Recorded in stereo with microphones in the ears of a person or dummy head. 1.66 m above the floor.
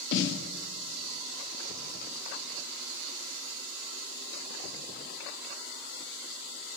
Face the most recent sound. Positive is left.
turn(degrees=65)  # may be behind; listen again after turning